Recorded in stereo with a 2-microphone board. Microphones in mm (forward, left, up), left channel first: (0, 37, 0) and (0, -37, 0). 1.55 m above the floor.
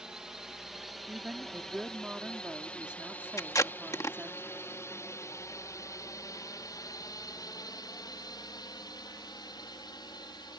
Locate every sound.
0.0 s a drone: 10° right (ahead or behind); by 10.6 s 70° left (ahead or behind)
1.1 s a woman speaking: 15° right (ahead or behind)
3.4 s tape being pulled: 45° left (ahead or behind)